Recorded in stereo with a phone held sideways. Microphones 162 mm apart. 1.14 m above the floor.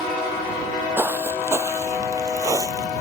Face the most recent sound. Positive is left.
turn(degrees=-20)  # may be behind; listen again after turning